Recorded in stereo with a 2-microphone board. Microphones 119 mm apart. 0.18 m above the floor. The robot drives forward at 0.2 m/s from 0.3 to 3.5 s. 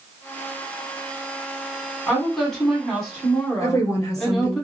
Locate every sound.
2.1 s a woman speaking: centre (ahead or behind), 1.5 m
3.6 s a woman speaking: 25° left (ahead or behind), 1.9 m